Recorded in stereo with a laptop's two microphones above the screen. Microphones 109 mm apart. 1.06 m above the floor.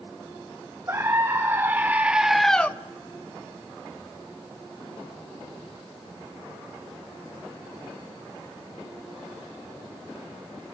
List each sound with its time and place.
0.9 s a scream: 25° right (ahead or behind), 1.5 m; by 2.7 s 15° left (ahead or behind), 0.6 m